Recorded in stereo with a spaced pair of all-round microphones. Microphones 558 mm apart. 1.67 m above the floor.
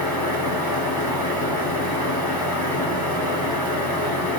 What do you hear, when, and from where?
0.0 s a fan: 40° left (ahead or behind), 1.4 m